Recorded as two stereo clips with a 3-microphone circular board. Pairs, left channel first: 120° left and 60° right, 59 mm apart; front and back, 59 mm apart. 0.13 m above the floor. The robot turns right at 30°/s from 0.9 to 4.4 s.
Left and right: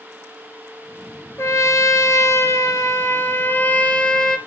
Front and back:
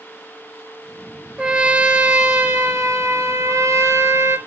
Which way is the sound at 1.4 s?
105° left.